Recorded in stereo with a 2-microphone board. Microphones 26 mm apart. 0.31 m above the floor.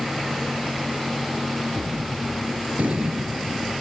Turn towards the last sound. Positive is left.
turn(degrees=-65)  # may be behind; listen again after turning